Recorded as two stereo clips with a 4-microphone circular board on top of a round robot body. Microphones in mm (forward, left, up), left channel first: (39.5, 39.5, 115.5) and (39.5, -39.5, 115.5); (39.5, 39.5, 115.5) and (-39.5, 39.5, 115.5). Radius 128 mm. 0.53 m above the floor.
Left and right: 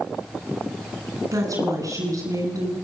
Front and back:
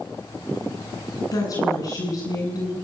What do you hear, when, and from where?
1.3 s a woman speaking: 45° right, 8.5 m